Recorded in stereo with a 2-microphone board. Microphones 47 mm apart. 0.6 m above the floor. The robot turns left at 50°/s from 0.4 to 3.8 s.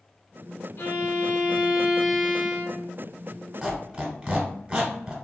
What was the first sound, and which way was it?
A violin, 60° left.